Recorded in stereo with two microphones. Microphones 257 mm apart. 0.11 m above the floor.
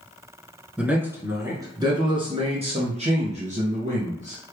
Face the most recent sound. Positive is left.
turn(degrees=-30)  # may be behind; listen again after turning